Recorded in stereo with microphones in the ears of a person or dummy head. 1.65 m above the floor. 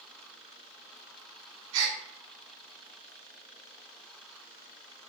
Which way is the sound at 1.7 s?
65° right (ahead or behind).